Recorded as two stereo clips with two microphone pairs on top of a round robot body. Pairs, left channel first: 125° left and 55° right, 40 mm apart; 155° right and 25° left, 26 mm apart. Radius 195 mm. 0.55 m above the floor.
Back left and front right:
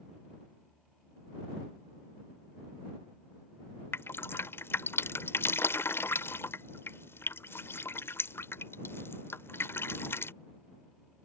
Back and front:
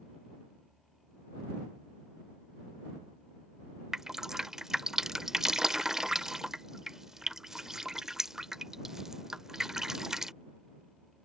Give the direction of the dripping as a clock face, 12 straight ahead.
9 o'clock.